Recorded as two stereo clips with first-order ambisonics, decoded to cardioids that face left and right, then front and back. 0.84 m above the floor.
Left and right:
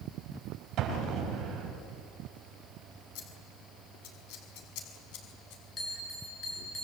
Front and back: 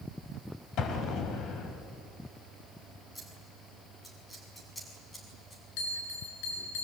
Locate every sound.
0.8 s an explosion: 45° right, 3.5 m
3.1 s scissors: 85° left, 4.5 m
5.8 s a bell: 15° left, 7 m